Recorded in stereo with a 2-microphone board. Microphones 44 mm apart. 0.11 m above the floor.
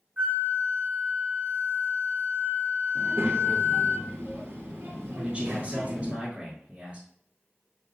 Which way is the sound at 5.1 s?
25° right (ahead or behind).